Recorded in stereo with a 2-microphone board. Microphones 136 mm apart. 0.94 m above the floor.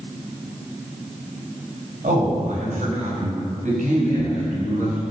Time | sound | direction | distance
2.0 | a man speaking | 70° right (ahead or behind) | 6 m